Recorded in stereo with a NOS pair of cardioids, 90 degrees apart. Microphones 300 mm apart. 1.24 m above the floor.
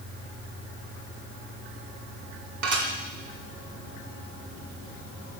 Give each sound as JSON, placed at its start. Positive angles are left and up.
{"t": 2.6, "sound": "dishes clattering", "azimuth_deg": -65, "distance_m": 2.0}